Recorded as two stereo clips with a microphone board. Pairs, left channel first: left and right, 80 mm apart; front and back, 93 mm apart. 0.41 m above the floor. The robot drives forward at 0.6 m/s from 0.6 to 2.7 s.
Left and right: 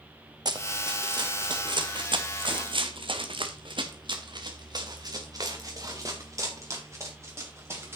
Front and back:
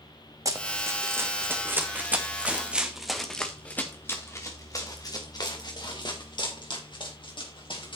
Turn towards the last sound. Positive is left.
turn(degrees=-30)